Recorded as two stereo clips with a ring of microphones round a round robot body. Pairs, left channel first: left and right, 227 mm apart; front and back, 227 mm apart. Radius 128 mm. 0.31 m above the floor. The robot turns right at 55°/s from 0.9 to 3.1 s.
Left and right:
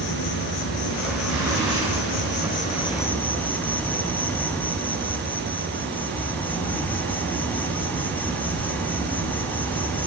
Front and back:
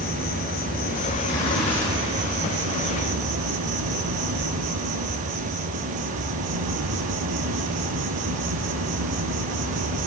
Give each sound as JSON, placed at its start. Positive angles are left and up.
{"t": 0.0, "sound": "an insect", "azimuth_deg": 50, "distance_m": 1.4}
{"t": 1.2, "sound": "a zipper", "azimuth_deg": -45, "distance_m": 6.0}